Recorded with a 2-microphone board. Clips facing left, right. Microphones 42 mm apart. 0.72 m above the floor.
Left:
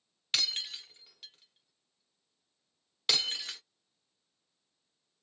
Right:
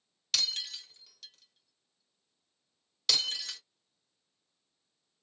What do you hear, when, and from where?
0.3 s breaking glass: 25° left (ahead or behind), 1.0 m